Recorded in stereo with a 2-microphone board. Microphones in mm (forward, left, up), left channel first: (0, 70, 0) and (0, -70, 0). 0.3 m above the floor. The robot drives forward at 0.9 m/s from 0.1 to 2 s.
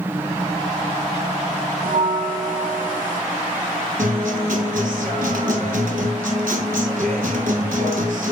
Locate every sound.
1.8 s a bell: 75° right (ahead or behind), 0.8 m; by 3.2 s 70° right (ahead or behind), 0.9 m
4.0 s a guitar: 75° right (ahead or behind), 1.3 m